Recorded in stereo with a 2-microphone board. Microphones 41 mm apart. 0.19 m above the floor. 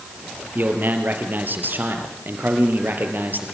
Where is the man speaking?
50° right (ahead or behind), 4.5 m.